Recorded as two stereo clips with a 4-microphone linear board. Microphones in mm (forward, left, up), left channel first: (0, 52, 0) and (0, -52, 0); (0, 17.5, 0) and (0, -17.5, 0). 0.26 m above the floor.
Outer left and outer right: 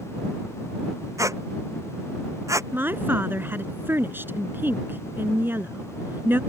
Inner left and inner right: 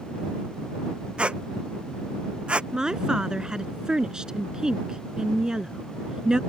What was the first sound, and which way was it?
A squeak, 30° right (ahead or behind).